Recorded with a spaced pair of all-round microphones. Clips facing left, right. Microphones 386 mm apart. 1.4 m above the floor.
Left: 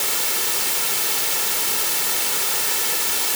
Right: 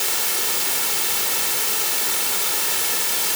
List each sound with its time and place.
Only background noise.